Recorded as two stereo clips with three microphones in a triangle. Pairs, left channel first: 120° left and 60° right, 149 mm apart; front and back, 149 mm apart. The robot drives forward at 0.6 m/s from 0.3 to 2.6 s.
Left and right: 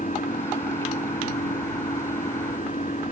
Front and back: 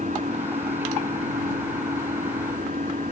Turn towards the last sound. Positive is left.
turn(degrees=150)